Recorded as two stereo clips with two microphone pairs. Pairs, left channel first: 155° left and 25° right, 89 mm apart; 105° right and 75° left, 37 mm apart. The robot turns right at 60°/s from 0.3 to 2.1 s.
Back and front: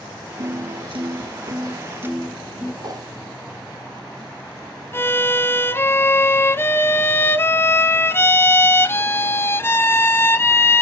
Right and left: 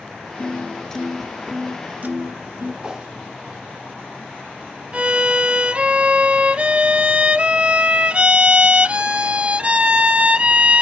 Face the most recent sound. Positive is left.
turn(degrees=110)